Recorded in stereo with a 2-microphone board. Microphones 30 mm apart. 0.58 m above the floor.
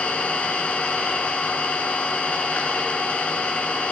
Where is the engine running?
45° left (ahead or behind), 5 m.